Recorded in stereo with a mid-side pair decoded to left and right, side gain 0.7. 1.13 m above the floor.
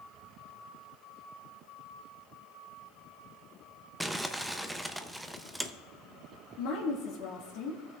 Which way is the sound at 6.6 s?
70° left.